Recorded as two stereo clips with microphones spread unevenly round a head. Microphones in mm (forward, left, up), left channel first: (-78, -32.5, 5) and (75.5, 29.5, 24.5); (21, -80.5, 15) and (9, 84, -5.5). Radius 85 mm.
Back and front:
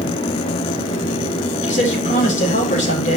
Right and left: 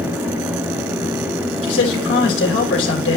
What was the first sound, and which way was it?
A man speaking, 110° right.